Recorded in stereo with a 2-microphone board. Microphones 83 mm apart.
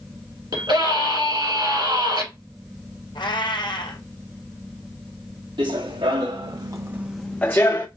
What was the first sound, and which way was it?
A scream, 65° right (ahead or behind).